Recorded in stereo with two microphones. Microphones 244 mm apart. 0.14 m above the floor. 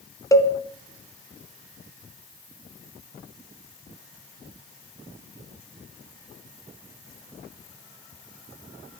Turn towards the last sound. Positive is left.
turn(degrees=15)  # may be behind; listen again after turning